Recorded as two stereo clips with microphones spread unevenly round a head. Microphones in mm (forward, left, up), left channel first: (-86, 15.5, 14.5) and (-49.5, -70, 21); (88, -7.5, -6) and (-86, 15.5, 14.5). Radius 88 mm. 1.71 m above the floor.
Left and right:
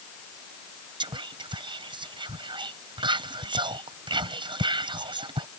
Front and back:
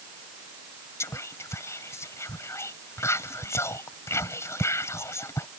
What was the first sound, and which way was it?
Whispering, 85° right.